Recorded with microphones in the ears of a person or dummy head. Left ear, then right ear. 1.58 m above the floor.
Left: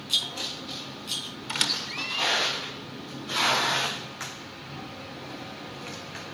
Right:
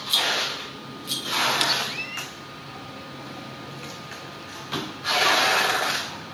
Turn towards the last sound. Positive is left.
turn(degrees=-5)  # may be behind; listen again after turning